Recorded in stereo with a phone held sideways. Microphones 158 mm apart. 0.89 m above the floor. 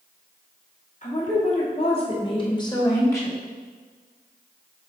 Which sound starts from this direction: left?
A woman speaking, at 1.0 s.